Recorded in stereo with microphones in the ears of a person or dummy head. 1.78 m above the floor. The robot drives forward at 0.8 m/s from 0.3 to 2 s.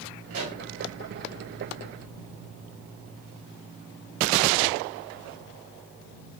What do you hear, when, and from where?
0.3 s a pop: 75° right (ahead or behind), 2 m